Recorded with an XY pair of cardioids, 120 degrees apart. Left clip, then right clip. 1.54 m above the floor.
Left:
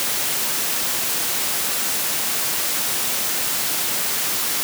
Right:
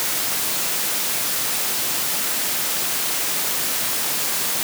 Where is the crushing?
I don't hear crushing.